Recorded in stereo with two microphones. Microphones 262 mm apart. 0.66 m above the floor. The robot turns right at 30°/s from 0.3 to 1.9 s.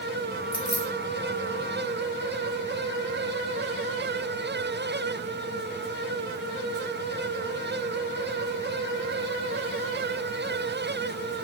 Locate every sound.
0.5 s keys jangling: 5° left (ahead or behind), 1.2 m; by 0.9 s 15° left (ahead or behind), 1.2 m